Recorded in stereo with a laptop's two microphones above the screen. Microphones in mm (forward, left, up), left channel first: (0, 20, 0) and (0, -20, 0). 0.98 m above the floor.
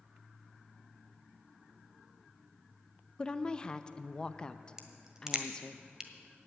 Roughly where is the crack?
Centre.